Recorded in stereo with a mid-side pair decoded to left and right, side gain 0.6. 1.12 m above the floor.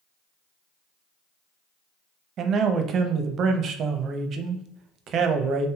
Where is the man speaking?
50° right, 0.5 m.